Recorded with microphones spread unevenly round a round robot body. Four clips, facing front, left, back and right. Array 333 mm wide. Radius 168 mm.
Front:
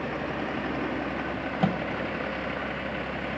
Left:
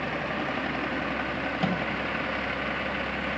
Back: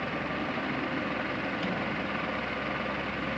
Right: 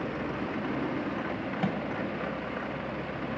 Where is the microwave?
15° left, 2 m.